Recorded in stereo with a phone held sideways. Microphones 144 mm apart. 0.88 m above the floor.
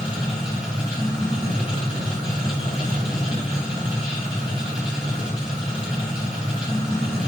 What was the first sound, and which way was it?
A machine running, 5° right (ahead or behind).